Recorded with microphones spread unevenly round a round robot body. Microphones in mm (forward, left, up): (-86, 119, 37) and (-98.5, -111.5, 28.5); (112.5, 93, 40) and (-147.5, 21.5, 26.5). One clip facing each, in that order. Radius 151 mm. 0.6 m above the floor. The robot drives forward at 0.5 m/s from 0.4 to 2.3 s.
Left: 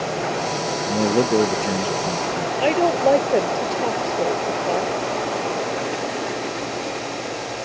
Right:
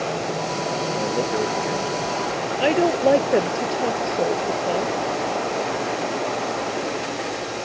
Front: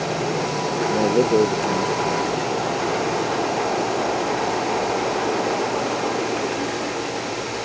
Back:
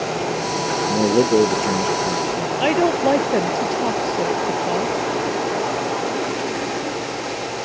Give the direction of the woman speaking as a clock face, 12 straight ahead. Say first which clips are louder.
Even, back 6 dB; 6 o'clock.